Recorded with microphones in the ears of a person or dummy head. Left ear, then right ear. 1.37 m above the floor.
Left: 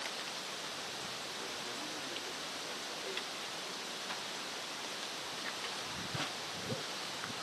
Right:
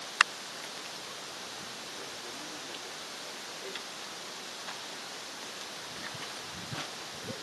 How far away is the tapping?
I don't hear tapping.